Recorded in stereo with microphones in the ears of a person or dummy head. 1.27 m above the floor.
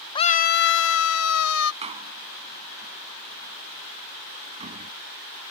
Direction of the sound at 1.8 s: 35° right (ahead or behind).